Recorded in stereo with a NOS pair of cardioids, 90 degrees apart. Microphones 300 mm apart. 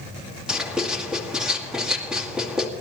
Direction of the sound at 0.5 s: Straight ahead.